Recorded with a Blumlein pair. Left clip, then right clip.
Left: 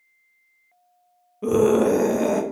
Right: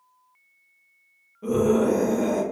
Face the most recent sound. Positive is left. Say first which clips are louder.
# left 3 dB
turn(degrees=30)